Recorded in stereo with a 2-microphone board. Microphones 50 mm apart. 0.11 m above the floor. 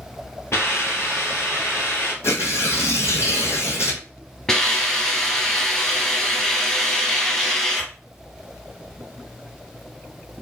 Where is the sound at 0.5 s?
60° left (ahead or behind), 1.3 m.